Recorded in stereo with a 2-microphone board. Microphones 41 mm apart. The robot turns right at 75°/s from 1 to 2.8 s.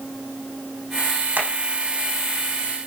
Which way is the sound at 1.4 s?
40° right (ahead or behind).